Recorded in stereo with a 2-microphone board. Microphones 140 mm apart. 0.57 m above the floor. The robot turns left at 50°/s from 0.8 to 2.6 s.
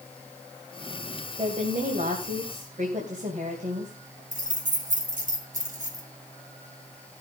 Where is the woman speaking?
50° right, 2.5 m; by 4.2 s 110° right, 2.5 m.